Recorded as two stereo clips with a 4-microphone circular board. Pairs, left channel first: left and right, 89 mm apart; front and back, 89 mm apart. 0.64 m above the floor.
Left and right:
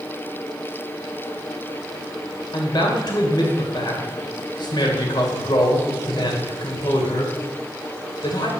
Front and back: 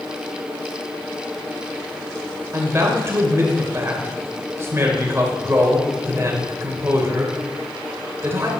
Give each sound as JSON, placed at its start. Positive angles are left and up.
{"t": 2.5, "sound": "a man speaking", "azimuth_deg": 120, "distance_m": 2.5}